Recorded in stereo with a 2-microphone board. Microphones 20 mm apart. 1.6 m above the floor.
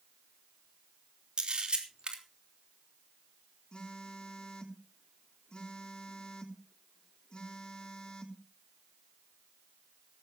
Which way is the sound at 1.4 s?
50° right (ahead or behind).